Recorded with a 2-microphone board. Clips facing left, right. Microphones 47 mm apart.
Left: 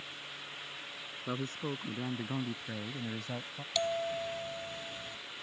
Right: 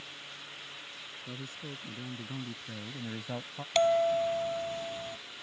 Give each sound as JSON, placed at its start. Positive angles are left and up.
{"t": 1.3, "sound": "a man speaking", "side_deg": 60}
{"t": 3.8, "sound": "a bell", "side_deg": -50}